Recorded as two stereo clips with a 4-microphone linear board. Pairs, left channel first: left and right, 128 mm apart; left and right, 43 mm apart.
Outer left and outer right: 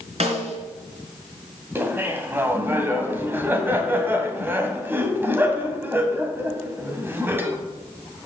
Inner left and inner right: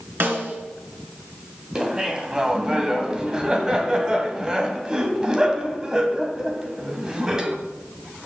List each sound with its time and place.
0.2 s a snare drum: 55° right (ahead or behind), 3 m
1.8 s laughter: 15° right (ahead or behind), 1.7 m